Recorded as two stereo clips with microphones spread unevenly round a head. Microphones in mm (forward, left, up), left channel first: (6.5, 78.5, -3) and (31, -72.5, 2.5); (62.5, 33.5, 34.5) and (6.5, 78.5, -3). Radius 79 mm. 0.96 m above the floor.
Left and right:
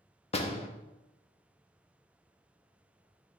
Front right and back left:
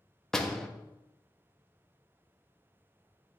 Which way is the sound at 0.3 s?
50° left.